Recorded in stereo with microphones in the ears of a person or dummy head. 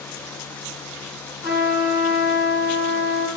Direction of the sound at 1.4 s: 70° left (ahead or behind).